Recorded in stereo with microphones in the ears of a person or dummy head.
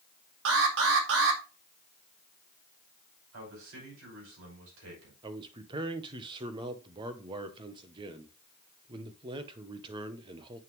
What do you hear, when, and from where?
0.5 s an alarm: 75° right (ahead or behind), 2.0 m
3.3 s a man speaking: 80° right, 5.5 m
5.2 s a man speaking: 25° right (ahead or behind), 0.9 m